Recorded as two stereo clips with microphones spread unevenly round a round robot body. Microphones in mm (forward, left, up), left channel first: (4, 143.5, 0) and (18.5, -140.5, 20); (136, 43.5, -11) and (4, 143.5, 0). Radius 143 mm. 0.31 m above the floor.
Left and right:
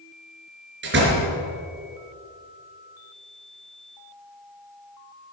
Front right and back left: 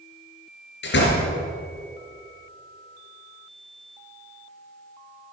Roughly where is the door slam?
Ahead right.